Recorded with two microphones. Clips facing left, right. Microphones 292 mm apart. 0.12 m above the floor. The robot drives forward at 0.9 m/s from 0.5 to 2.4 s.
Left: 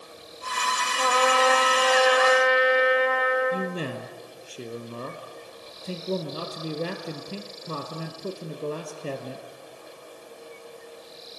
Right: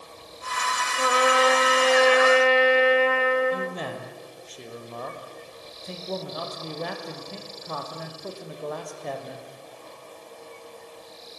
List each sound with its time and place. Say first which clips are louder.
1.0 s a trumpet: right 1 dB; 15° right (ahead or behind), 2 m; by 3.8 s 35° right (ahead or behind), 1.2 m
3.5 s a man speaking: left 1 dB; 35° left (ahead or behind), 2.5 m